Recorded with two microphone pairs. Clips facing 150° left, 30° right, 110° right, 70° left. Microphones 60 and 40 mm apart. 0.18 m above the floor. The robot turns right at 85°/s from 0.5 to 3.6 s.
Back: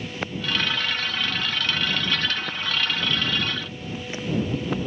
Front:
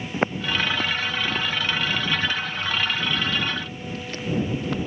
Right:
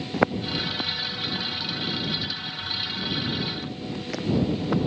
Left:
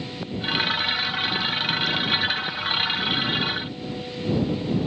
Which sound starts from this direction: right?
Footsteps, at 0.1 s.